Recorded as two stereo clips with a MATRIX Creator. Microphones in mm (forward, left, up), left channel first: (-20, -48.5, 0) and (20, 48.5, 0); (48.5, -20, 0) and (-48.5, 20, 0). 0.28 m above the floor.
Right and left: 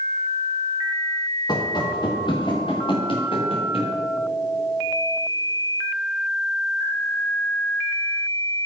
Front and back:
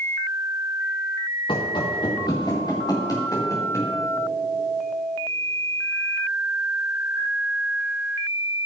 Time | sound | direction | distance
1.5 | running footsteps | 60° right | 1.8 m